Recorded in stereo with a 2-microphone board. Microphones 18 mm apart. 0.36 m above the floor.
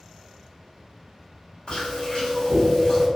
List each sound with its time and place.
1.7 s chewing: 60° left (ahead or behind), 1.9 m